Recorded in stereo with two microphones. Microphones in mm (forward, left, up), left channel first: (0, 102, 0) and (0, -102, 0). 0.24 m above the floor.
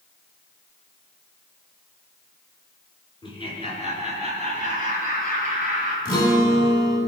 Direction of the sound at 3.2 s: 25° left (ahead or behind).